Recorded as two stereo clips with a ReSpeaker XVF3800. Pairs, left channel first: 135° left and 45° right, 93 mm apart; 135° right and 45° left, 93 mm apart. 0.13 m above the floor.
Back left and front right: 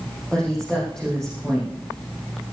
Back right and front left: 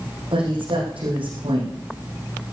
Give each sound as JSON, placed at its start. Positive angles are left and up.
{"t": 0.3, "sound": "a woman speaking", "azimuth_deg": 55, "distance_m": 6.0}